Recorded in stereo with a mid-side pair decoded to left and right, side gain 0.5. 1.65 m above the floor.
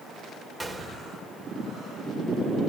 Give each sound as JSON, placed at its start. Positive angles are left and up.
{"t": 0.6, "sound": "a gunshot", "azimuth_deg": 0, "distance_m": 4.5}